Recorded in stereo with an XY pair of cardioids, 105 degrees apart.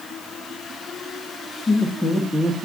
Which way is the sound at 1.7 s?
25° left.